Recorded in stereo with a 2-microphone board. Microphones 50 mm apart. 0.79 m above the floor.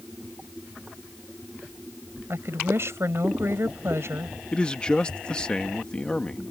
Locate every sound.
2.3 s a woman speaking: 60° right (ahead or behind)
4.5 s a man speaking: 20° left (ahead or behind)